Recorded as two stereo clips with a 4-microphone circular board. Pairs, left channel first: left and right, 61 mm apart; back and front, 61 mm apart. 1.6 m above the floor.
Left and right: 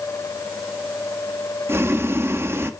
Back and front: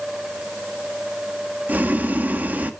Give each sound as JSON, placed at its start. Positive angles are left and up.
{"t": 1.7, "sound": "boiling", "azimuth_deg": -55, "distance_m": 1.4}